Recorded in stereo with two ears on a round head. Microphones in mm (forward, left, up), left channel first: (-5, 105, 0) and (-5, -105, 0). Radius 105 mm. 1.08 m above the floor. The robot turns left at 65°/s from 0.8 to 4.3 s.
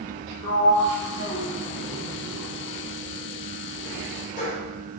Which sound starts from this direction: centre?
A sliding door, at 0.4 s.